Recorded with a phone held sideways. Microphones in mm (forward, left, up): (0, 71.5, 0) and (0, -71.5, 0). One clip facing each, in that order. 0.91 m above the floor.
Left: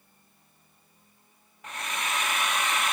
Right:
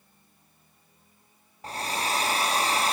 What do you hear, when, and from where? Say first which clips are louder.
1.6 s a hair dryer: right 4 dB; 35° right (ahead or behind), 0.8 m